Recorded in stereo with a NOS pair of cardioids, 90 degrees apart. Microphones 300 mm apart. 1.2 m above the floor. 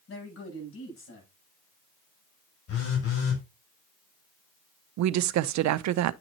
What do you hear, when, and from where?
0.1 s a man speaking: 45° left, 8.5 m
2.7 s a phone buzzing: 50° left, 6 m
5.0 s a woman speaking: 70° right, 0.6 m